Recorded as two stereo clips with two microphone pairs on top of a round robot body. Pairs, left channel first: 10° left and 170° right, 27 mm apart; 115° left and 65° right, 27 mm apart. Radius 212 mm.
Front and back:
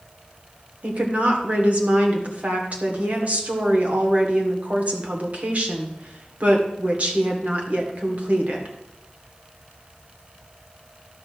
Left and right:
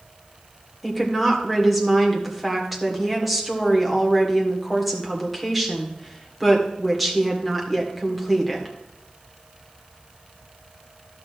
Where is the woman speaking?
155° right, 2 m.